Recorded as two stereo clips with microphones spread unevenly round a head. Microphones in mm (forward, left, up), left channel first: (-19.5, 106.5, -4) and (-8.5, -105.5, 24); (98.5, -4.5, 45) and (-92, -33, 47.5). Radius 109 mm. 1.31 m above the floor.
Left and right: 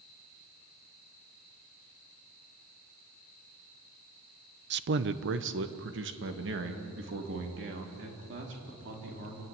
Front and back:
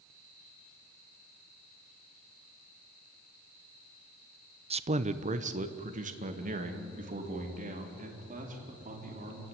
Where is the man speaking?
120° right, 0.7 m; by 9.4 s 125° right, 5 m.